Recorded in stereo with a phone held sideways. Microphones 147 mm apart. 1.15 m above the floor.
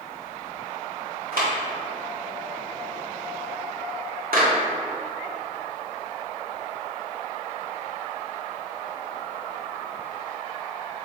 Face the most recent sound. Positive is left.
turn(degrees=-80)